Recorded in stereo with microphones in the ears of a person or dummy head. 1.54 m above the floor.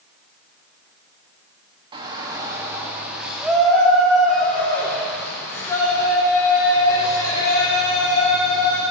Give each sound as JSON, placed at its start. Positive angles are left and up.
{"t": 1.9, "sound": "a shout", "side_deg": -25, "distance_m": 2.0}